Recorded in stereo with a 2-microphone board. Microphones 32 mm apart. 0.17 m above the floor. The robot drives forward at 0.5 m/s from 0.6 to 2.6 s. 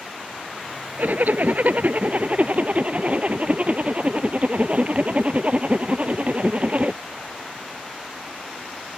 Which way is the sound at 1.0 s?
70° right (ahead or behind).